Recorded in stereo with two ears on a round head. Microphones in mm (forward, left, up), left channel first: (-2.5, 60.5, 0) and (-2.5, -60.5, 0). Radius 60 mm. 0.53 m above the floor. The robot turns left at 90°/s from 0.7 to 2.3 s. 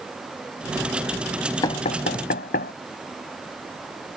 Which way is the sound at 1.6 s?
30° left (ahead or behind).